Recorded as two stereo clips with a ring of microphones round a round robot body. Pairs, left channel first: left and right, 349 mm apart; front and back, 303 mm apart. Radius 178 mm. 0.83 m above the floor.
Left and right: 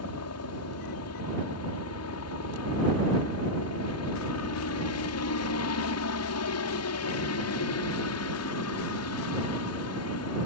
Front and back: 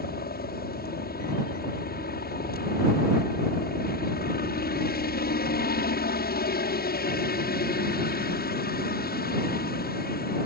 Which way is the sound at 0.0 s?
55° left.